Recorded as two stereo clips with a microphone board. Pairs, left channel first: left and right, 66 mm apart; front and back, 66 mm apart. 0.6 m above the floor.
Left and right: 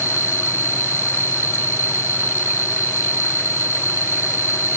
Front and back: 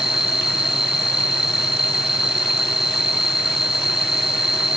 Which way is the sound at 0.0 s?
100° right.